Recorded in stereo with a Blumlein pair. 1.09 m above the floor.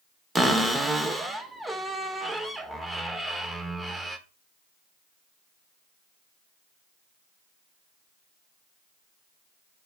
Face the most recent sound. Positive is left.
turn(degrees=-5)